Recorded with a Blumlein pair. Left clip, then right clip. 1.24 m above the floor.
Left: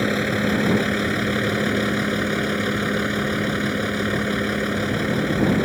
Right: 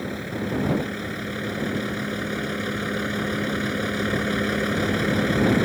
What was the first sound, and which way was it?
A vehicle, 30° left.